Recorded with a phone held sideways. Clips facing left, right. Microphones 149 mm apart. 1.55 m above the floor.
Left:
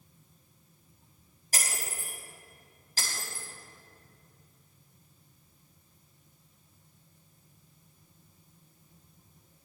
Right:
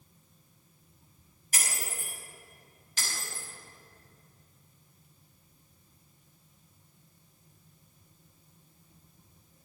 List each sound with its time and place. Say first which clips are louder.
1.5 s breaking glass: left 1 dB; 35° left (ahead or behind), 5.5 m